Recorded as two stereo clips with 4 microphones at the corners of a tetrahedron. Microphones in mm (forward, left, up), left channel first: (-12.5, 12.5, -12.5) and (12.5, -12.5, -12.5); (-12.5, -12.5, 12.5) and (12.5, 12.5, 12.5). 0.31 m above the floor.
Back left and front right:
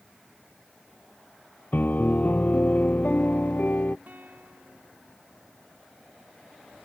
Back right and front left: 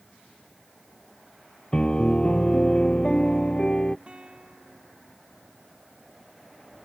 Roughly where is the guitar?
Ahead.